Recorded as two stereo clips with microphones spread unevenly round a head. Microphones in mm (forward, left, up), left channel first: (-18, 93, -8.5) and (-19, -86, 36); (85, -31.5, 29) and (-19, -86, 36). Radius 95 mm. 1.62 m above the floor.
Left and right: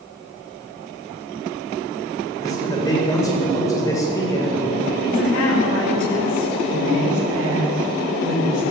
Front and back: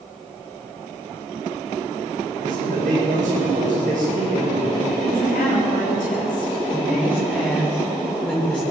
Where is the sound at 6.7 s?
55° right, 3.5 m.